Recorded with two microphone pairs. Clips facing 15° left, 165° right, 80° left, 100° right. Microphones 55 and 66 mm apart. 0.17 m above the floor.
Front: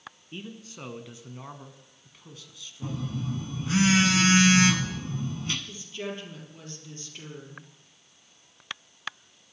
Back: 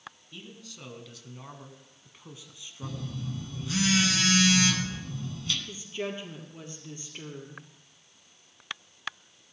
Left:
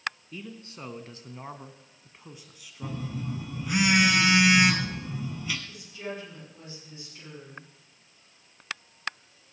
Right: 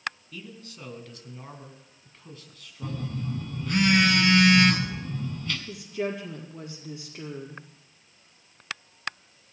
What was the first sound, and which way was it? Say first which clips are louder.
A man speaking: front 5 dB, left 2 dB; 40° left.